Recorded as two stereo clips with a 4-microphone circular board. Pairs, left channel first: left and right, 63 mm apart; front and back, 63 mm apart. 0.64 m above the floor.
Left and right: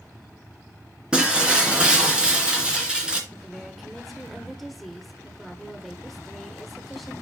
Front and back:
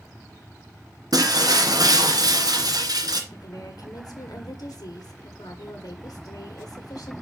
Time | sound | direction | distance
1.1 | breaking glass | 165° right | 2.5 m
3.3 | a woman speaking | straight ahead | 1.9 m